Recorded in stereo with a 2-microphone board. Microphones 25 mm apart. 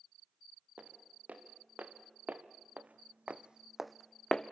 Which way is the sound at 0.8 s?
70° right (ahead or behind).